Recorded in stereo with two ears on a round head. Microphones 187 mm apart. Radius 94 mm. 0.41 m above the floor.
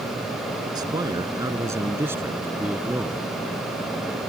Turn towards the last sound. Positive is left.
turn(degrees=-5)  # may be behind; listen again after turning